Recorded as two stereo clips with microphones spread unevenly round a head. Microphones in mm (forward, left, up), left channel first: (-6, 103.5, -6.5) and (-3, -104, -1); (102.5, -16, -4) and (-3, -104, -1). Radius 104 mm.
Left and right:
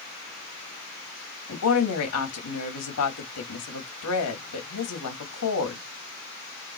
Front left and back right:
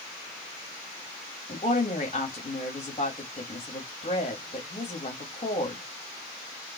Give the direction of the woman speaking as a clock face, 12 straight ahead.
9 o'clock.